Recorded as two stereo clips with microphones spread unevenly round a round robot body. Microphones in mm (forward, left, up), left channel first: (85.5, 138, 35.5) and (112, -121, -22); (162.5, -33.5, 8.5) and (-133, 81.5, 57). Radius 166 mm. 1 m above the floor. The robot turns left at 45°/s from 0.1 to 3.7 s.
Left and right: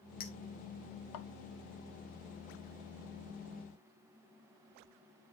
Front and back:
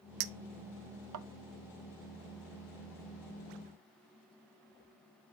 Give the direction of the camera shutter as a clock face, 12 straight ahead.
I don't hear a camera shutter.